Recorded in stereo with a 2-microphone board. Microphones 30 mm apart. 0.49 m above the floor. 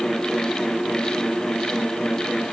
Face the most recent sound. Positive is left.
No sound to turn to.